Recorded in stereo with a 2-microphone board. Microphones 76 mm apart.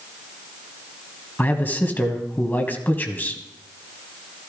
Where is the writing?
I don't hear writing.